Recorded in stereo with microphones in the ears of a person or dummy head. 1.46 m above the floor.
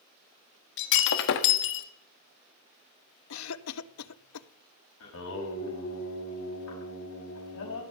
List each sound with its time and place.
0.8 s breaking glass: 60° left (ahead or behind), 1.4 m
3.3 s a cough: 80° left, 0.9 m
5.0 s singing: 75° left (ahead or behind), 5.5 m